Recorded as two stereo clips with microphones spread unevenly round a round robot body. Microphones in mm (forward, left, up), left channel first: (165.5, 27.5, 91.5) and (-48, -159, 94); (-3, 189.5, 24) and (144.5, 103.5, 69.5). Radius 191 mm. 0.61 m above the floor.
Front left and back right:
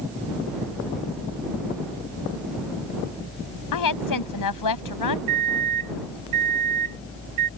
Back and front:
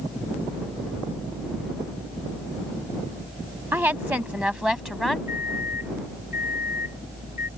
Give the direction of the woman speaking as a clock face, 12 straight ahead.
10 o'clock.